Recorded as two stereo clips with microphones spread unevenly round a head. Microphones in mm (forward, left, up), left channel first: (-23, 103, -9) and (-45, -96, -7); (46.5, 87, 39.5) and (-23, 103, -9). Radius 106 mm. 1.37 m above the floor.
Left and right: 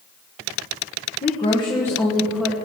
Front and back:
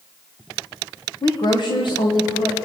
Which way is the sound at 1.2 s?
25° left.